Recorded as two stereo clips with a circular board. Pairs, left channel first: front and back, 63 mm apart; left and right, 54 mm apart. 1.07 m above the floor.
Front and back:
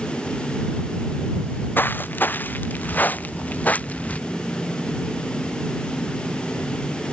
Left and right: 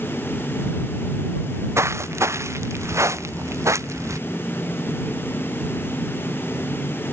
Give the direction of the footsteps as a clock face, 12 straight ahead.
2 o'clock.